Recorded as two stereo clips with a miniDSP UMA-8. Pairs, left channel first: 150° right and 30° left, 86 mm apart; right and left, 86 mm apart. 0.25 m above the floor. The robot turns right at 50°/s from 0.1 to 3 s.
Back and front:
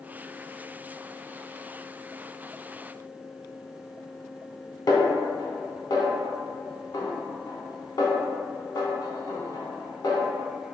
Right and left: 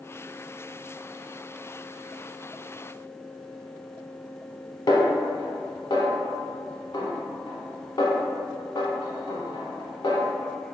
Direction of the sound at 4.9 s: 120° right.